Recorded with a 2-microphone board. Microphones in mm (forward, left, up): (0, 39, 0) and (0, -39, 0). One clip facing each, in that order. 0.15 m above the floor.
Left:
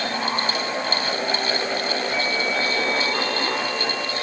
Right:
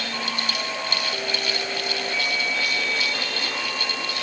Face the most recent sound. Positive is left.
No sound to turn to.